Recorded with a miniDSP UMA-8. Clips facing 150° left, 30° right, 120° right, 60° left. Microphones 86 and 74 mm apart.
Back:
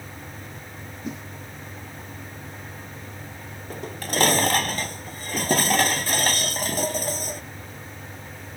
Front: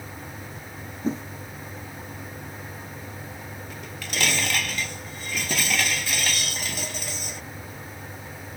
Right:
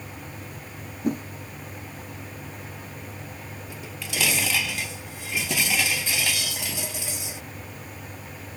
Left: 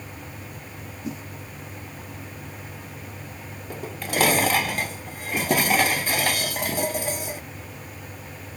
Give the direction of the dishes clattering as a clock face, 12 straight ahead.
9 o'clock.